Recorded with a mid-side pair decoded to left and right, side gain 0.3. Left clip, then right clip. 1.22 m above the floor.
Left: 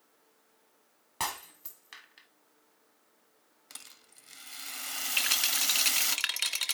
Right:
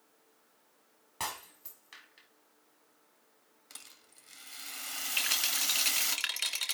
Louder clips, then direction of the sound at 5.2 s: Left 2 dB; 40° left.